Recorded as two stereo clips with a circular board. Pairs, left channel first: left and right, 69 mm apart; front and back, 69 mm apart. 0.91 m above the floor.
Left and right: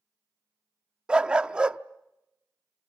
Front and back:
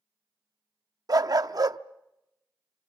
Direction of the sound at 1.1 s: 165° right.